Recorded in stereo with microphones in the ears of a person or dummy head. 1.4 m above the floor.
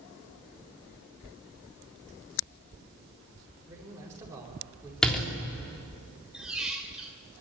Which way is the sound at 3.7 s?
15° right (ahead or behind).